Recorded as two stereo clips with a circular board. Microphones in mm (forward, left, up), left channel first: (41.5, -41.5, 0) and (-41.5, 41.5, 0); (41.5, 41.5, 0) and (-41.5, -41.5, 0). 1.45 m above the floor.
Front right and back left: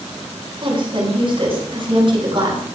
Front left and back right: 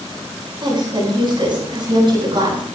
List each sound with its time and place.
0.6 s a woman speaking: 175° left, 9 m